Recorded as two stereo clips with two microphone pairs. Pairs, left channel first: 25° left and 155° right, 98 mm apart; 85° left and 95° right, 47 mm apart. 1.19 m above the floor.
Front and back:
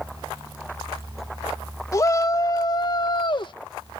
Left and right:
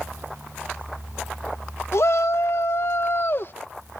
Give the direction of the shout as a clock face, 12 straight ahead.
9 o'clock.